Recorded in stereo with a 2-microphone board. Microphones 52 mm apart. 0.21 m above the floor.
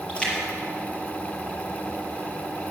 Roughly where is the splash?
Left.